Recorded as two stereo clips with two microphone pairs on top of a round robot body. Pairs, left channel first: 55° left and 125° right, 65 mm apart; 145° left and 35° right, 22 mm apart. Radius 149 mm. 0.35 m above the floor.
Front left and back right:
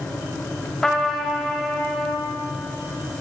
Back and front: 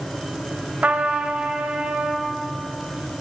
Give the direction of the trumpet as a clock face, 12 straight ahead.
1 o'clock.